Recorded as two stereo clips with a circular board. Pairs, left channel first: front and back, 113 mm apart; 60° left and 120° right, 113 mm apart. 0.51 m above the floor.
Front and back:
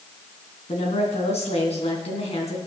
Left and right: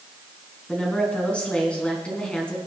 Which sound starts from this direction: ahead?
A woman speaking, at 0.7 s.